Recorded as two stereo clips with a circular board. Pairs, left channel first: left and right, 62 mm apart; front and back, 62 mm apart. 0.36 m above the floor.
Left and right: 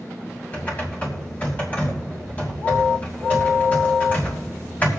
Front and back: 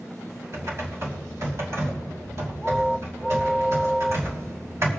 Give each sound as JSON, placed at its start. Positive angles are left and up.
{"t": 0.5, "sound": "typing on a keyboard", "azimuth_deg": 145, "distance_m": 2.5}